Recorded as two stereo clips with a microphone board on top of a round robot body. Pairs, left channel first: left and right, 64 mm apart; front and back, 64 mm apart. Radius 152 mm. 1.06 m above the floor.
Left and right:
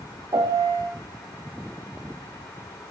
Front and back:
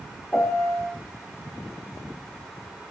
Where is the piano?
80° right, 1.2 m.